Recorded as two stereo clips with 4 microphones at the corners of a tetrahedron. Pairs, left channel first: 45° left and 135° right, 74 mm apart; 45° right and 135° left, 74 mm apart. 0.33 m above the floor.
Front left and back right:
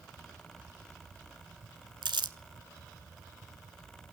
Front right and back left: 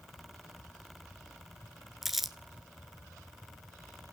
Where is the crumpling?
140° right, 0.9 m.